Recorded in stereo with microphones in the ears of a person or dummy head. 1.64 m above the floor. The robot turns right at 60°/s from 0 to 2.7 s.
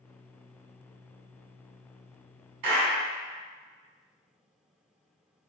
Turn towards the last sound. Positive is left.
turn(degrees=-55)  # may be behind; listen again after turning